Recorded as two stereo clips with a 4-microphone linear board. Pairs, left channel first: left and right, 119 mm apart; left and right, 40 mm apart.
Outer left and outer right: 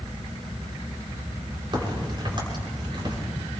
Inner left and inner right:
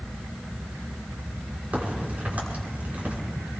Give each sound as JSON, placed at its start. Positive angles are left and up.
{"t": 1.7, "sound": "a crack", "side_deg": -45, "distance_m": 5.5}